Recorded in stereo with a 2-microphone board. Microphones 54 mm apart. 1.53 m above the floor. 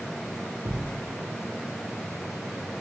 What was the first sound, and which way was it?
A thud, 55° right (ahead or behind).